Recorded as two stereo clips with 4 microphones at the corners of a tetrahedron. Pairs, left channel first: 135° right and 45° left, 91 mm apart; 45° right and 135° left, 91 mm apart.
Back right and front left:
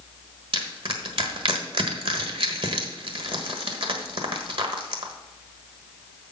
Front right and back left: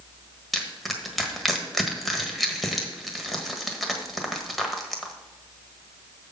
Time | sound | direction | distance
0.5 | crushing | 45° left | 1.3 m